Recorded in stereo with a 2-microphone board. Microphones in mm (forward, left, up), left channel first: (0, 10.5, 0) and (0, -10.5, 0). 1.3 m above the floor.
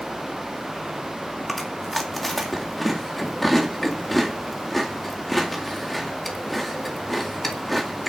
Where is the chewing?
5° left (ahead or behind), 2 m.